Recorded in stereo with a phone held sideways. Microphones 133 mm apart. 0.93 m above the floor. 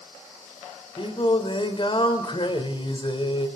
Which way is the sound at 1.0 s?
40° left (ahead or behind).